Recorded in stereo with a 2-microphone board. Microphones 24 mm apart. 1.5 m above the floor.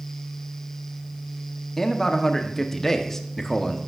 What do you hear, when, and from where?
1.8 s a man speaking: 20° left (ahead or behind), 0.9 m